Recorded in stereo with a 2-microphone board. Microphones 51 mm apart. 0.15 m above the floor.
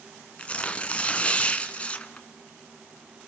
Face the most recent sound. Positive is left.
turn(degrees=25)  # may be behind; listen again after turning